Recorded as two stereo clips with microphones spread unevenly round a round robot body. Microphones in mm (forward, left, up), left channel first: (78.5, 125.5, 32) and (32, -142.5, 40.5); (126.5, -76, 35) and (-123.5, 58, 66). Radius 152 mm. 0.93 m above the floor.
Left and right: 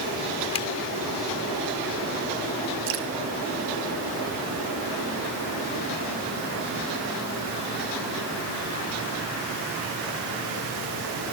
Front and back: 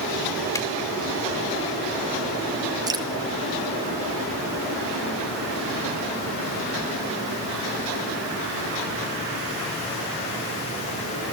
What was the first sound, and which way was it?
A zipper, 50° left.